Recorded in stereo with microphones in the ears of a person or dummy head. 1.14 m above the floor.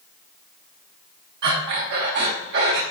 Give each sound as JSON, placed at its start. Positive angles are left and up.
{"t": 1.4, "sound": "breathing", "side_deg": -60, "distance_m": 1.8}